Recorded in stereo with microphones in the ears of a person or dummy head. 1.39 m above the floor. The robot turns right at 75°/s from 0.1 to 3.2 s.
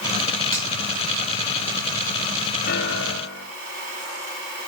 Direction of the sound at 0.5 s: 20° left (ahead or behind).